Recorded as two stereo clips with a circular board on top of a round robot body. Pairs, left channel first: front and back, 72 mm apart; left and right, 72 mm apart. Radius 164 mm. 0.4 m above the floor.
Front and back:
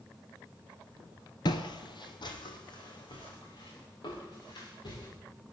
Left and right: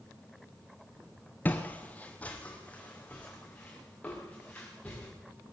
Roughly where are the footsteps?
Ahead left.